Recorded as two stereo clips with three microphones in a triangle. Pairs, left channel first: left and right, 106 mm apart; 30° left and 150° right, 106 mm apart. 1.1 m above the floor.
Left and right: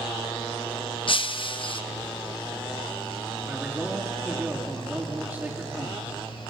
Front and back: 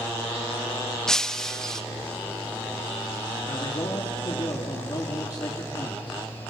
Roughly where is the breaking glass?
Behind left.